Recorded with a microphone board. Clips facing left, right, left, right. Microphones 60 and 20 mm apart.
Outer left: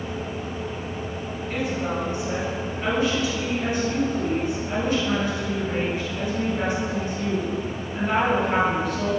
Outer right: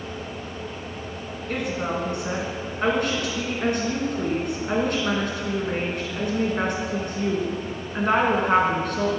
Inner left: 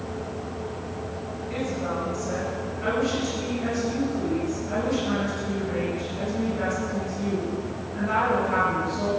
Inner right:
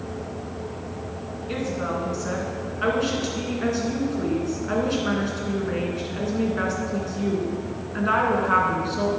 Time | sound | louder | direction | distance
1.5 | a woman speaking | even, inner right 2 dB | 65° right (ahead or behind) | 3 m